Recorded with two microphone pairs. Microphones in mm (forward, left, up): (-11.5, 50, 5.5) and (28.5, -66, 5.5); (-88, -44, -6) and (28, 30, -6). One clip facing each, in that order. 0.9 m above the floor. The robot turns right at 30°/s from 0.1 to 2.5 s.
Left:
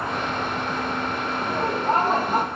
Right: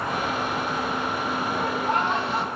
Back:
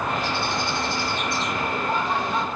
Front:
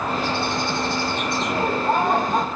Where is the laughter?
45° left, 0.7 m; by 2.5 s 75° left, 0.7 m.